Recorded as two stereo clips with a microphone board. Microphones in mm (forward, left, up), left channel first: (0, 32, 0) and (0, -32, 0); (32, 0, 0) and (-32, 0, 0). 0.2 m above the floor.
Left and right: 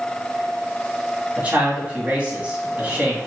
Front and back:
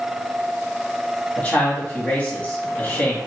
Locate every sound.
1.4 s a man speaking: 40° right, 1.6 m